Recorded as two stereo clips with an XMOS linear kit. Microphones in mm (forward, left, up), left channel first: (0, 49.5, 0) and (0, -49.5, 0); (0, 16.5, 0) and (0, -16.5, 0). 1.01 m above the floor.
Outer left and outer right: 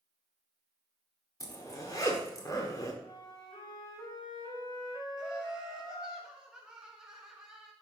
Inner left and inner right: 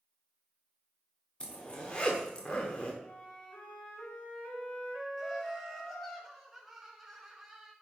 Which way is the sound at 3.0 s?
45° left (ahead or behind).